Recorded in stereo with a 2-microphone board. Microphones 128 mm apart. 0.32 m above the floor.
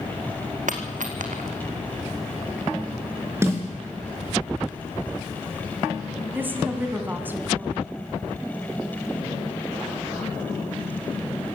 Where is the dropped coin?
80° right, 2.5 m.